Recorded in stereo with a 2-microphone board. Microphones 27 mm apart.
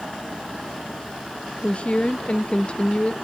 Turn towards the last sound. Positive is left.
turn(degrees=40)  # may be behind; listen again after turning